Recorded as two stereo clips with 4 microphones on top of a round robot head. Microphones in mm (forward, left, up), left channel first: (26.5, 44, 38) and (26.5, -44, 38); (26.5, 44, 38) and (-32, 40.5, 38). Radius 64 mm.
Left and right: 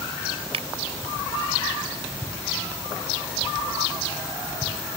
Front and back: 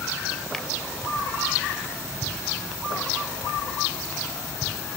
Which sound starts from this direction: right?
A finger snap, at 0.5 s.